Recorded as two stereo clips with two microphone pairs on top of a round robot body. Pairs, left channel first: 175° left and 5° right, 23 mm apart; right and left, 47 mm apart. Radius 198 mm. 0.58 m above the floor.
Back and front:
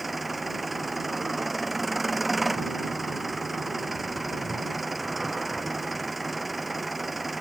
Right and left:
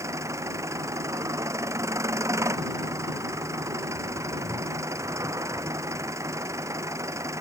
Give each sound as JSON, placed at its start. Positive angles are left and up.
{"t": 0.0, "sound": "an engine running", "azimuth_deg": 80}